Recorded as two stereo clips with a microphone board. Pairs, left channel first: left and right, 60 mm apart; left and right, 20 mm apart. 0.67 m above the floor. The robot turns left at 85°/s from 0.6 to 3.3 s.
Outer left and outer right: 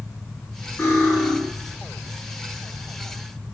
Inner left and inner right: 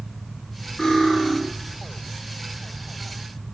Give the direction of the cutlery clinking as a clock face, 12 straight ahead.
11 o'clock.